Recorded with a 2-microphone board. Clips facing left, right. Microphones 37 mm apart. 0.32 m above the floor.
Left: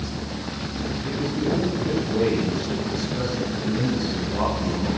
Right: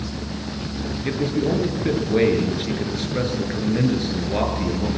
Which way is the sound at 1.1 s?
65° right (ahead or behind).